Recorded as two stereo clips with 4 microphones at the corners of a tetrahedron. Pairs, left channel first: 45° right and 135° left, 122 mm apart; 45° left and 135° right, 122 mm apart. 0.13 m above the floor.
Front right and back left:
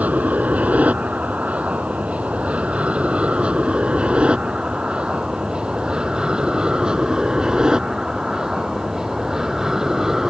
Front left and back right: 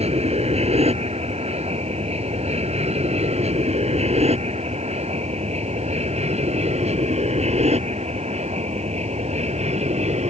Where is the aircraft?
150° right; by 10.3 s 140° right.